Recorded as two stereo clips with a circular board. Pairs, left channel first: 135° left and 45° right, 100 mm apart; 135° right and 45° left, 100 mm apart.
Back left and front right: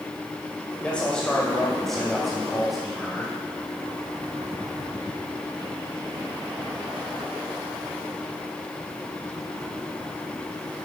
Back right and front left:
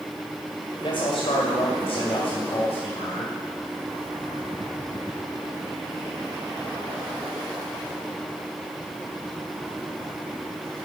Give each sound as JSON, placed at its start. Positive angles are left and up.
{"t": 0.8, "sound": "a man speaking", "azimuth_deg": -150, "distance_m": 2.0}